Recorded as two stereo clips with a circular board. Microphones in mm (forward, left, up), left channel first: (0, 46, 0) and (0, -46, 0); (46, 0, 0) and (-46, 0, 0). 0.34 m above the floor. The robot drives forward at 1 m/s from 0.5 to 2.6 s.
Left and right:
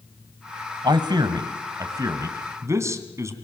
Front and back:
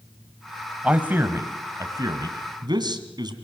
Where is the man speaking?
105° right, 1.8 m; by 3.3 s 145° right, 3 m.